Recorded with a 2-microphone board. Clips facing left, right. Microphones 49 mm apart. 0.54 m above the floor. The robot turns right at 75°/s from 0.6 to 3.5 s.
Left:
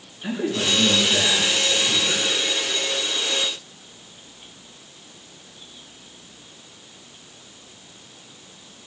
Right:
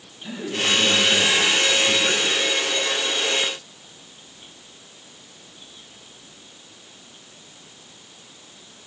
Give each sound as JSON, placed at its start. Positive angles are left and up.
{"t": 0.2, "sound": "a man speaking", "azimuth_deg": 125, "distance_m": 7.0}